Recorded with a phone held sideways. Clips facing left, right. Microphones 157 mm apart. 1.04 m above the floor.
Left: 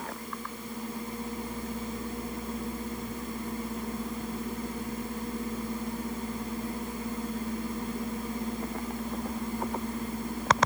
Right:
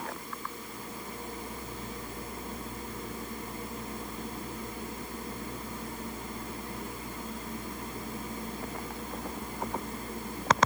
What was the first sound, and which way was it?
Only background noise.